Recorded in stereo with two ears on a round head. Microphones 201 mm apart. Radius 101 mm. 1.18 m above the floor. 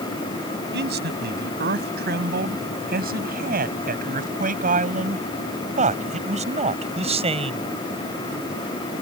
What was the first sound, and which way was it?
A man speaking, 50° right (ahead or behind).